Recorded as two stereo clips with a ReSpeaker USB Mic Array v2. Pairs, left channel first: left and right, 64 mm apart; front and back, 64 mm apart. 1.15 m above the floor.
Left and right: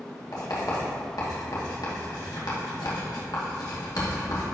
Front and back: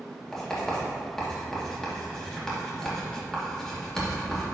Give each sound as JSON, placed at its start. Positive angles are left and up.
{"t": 0.3, "sound": "writing", "azimuth_deg": 80, "distance_m": 1.7}